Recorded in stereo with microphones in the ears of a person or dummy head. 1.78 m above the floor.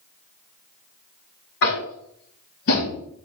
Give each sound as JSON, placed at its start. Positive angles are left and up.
{"t": 1.6, "sound": "tapping", "side_deg": 65, "distance_m": 2.0}